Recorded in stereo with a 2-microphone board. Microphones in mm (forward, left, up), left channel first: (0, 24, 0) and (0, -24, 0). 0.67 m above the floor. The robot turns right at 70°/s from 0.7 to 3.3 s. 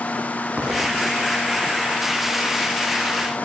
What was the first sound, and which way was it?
An explosion, 150° right.